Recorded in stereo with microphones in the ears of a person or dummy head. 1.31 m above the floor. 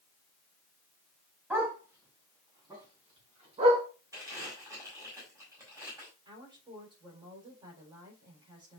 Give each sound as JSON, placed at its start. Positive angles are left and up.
{"t": 1.5, "sound": "a dog barking", "side_deg": -10, "distance_m": 3.5}
{"t": 4.1, "sound": "crumpling", "side_deg": -20, "distance_m": 6.5}
{"t": 6.2, "sound": "a woman speaking", "side_deg": -25, "distance_m": 4.5}